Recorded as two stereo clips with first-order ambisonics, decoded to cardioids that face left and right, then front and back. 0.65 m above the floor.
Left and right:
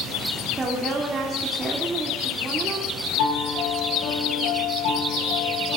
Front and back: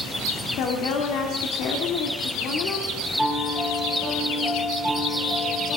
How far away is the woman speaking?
About 2.0 m.